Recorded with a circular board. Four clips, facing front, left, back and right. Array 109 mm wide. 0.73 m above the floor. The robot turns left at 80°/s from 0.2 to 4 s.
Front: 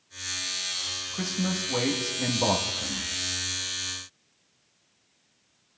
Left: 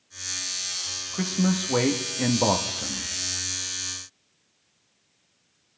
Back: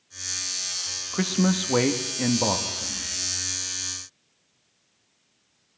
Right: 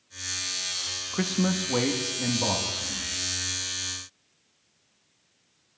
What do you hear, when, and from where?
1.1 s a man speaking: 150° right, 0.9 m; by 3.1 s 55° left, 0.9 m